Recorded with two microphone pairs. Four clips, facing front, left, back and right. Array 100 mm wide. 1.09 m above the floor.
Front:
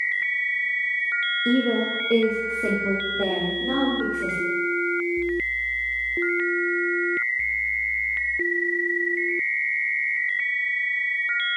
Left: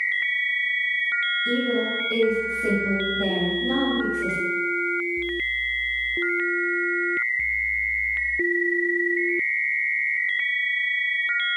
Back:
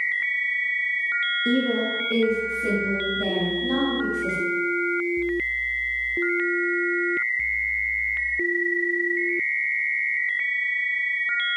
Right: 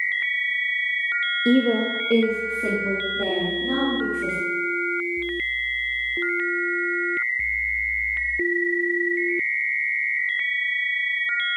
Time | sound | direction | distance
1.4 | a woman speaking | 80° right | 1.2 m